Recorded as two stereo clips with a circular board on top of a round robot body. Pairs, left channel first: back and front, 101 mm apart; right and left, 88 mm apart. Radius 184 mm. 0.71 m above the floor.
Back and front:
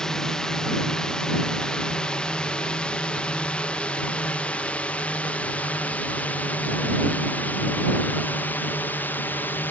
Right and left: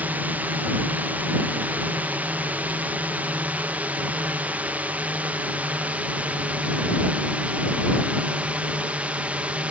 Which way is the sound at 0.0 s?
110° left.